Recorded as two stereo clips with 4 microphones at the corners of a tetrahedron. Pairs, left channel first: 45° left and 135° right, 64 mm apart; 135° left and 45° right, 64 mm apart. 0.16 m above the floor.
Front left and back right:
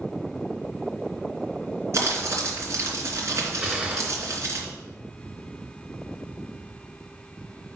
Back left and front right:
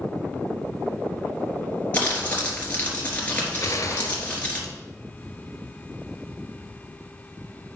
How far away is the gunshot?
About 1.4 m.